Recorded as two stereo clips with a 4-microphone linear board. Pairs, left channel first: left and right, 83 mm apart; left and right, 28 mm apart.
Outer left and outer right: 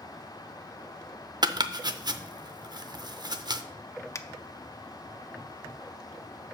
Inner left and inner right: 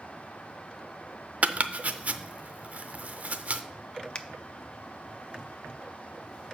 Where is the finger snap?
35° left (ahead or behind), 0.5 m.